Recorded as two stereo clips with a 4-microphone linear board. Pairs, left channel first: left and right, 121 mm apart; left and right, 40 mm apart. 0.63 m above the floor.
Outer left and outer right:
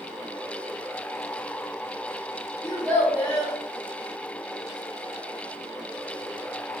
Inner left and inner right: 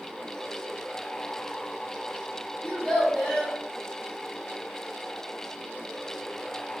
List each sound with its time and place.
2.6 s a child speaking: 25° left (ahead or behind), 1.4 m